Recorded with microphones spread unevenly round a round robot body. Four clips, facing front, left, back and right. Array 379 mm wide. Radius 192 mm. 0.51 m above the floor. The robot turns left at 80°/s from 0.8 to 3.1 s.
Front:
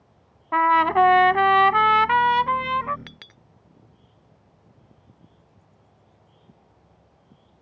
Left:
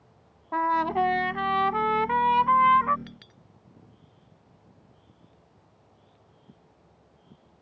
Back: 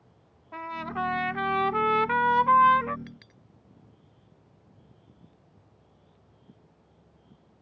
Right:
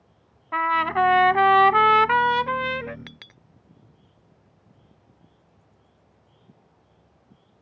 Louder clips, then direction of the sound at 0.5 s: Right 2 dB, front 16 dB; 20° left.